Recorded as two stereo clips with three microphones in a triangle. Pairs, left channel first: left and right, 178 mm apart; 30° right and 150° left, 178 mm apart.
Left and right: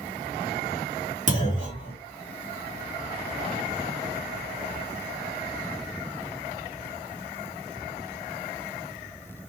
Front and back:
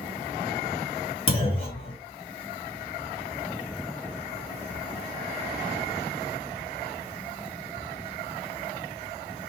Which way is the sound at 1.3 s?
70° right.